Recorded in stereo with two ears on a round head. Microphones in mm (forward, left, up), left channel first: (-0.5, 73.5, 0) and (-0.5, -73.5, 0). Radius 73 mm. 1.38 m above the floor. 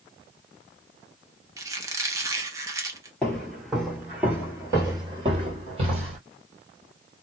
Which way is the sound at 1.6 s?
20° right (ahead or behind).